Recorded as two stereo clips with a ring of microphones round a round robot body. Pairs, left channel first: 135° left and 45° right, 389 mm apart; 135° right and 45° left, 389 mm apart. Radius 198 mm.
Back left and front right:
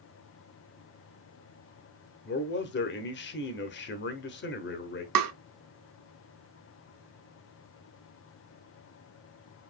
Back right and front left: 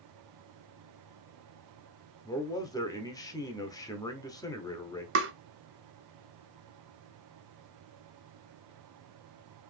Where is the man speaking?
155° left, 0.8 m.